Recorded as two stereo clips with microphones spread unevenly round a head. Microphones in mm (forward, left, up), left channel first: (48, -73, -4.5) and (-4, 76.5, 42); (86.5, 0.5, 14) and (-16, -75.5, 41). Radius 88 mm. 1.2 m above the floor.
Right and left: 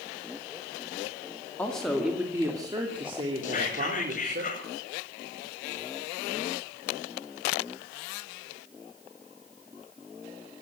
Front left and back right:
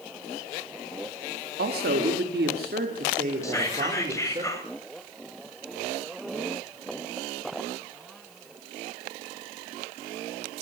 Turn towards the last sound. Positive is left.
turn(degrees=-30)